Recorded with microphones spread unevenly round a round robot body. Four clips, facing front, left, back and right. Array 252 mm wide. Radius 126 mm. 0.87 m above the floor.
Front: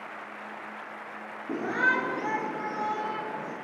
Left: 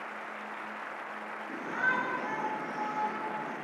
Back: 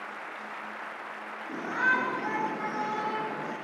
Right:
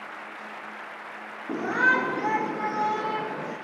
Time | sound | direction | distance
1.5 | a shout | 55° right | 2.5 m